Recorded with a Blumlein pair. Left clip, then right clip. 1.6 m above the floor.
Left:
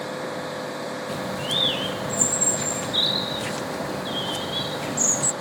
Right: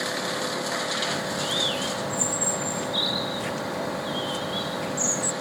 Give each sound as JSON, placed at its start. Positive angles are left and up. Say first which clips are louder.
{"t": 1.1, "sound": "a bird", "louder": "even", "azimuth_deg": 15}